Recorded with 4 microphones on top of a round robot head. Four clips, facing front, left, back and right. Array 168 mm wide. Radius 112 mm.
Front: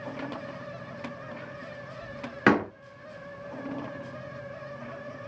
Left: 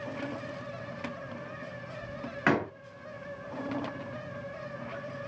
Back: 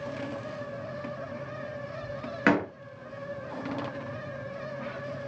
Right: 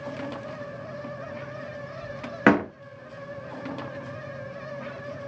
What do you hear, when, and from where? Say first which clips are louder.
2.5 s a door slam: right 8 dB, front 2 dB; 70° right, 1.5 m